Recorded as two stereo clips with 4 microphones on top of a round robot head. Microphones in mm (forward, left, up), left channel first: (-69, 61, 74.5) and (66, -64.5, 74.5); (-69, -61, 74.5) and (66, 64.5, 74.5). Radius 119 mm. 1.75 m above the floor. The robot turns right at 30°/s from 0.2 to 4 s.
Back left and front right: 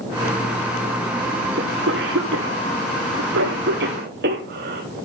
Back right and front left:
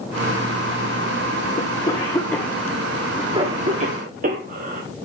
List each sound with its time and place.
1.6 s a cough: 80° right, 1.8 m; by 4.8 s 5° right, 1.8 m